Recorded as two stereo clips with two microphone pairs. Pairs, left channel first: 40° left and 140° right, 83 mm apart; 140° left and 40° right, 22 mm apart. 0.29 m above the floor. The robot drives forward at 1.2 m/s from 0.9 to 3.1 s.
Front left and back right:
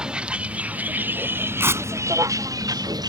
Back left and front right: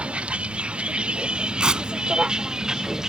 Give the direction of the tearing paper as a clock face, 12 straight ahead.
3 o'clock.